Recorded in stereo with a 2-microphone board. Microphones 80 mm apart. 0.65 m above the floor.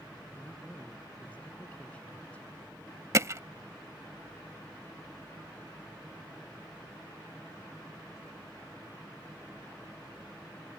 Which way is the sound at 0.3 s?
15° left (ahead or behind).